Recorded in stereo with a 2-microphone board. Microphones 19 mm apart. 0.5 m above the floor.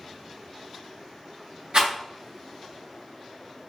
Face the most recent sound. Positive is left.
turn(degrees=-75)  # may be behind; listen again after turning